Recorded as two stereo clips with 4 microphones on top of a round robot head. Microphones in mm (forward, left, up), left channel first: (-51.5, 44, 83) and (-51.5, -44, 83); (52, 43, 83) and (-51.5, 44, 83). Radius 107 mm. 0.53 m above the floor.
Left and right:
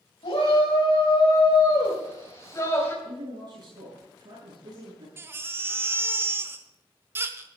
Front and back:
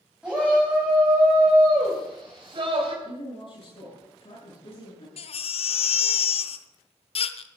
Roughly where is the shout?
Left.